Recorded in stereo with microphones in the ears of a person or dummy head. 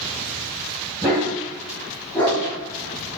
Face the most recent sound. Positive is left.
turn(degrees=10)  # may be behind; listen again after turning